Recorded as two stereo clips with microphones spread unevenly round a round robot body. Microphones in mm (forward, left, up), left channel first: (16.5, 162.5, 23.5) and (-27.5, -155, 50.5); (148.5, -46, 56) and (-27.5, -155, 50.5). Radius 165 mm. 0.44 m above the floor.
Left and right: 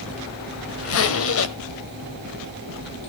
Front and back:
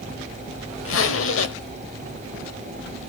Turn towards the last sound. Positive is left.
turn(degrees=35)